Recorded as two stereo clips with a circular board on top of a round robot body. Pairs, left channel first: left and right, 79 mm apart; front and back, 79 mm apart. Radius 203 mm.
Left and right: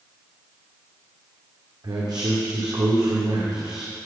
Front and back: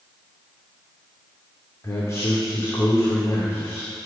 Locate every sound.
1.8 s a man speaking: 55° right, 2.5 m